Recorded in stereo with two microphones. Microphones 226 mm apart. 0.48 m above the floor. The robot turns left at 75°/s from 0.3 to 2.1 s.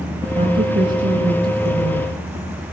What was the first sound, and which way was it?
A woman speaking, 25° right.